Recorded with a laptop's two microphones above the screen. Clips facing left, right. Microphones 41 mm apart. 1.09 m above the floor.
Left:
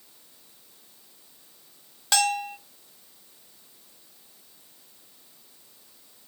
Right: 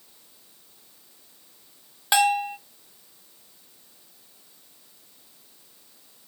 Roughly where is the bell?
Centre.